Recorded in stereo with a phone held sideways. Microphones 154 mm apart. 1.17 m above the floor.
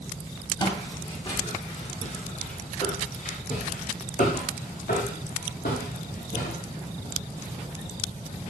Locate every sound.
0.6 s footsteps: 35° left (ahead or behind), 7.5 m; by 7.6 s 75° left (ahead or behind), 7.5 m